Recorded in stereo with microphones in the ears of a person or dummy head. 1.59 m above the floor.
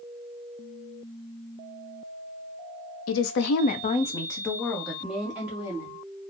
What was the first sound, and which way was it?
A woman speaking, 75° left (ahead or behind).